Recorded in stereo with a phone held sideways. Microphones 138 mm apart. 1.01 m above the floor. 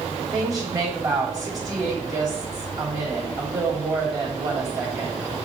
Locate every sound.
0.2 s a woman speaking: 30° right (ahead or behind), 6 m